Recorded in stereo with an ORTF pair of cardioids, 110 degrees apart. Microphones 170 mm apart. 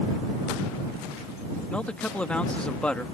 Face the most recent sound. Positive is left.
turn(degrees=5)